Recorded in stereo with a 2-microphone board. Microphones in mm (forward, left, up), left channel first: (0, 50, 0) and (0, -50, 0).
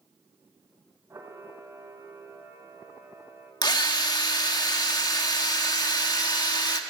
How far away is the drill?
About 1.5 m.